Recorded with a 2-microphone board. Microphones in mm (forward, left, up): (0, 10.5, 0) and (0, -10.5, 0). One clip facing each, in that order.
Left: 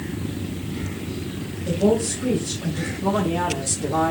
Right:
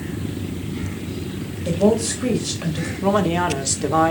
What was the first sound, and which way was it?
A woman speaking, 75° right (ahead or behind).